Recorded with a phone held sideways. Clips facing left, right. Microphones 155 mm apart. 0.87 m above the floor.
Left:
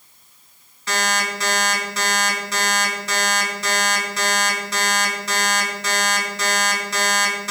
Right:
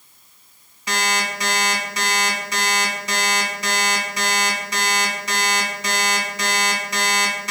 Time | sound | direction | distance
0.9 | an alarm clock | 15° right (ahead or behind) | 3.5 m